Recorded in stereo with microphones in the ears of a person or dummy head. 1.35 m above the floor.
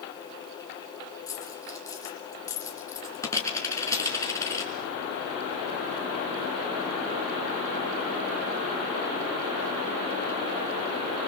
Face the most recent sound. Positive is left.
turn(degrees=20)  # may be behind; listen again after turning